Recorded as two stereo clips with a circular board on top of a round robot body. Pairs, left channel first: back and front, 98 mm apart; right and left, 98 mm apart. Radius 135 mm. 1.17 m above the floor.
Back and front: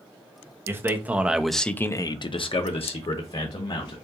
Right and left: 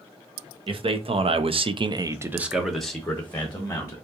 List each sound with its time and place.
0.7 s a man speaking: 65° left, 1.3 m; by 4.0 s 160° right, 1.8 m